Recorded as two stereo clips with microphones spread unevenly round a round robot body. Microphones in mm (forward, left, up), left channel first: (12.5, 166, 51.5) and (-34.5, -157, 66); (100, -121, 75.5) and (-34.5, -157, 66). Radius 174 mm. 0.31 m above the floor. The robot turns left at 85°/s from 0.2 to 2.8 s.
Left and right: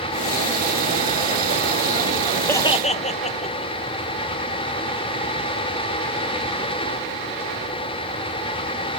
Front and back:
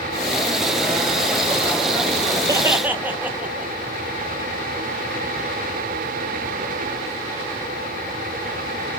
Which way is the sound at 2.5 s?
160° left.